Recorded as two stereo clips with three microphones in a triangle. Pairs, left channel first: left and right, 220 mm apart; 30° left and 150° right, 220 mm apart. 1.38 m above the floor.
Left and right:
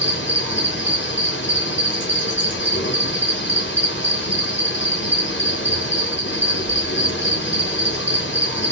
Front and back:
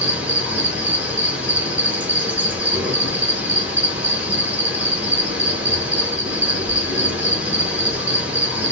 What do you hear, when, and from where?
0.0 s an insect: 125° left, 1.3 m